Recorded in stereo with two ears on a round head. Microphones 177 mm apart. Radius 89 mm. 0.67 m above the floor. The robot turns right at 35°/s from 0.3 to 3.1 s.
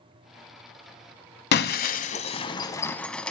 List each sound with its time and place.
1.5 s breaking glass: 55° left (ahead or behind), 1.1 m; by 3.3 s 5° left (ahead or behind), 1.1 m